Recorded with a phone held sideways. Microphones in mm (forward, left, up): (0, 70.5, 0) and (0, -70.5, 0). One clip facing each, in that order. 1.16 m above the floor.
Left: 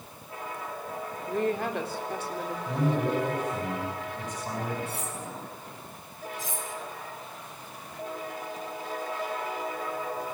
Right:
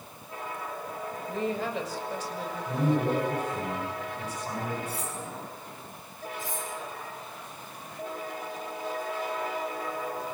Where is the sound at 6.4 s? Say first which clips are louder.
Right 1 dB; 85° left, 5.5 m.